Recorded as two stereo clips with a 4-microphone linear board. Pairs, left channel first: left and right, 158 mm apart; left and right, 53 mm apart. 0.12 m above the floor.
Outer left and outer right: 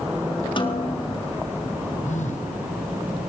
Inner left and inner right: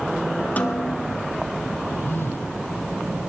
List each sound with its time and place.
0.6 s a snare drum: 35° left (ahead or behind), 1.2 m
2.0 s a phone buzzing: 55° left (ahead or behind), 1.7 m